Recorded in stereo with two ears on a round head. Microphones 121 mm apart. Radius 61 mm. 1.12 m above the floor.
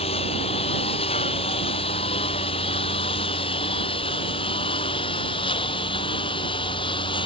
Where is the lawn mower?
40° left (ahead or behind); by 7.3 s 35° left (ahead or behind).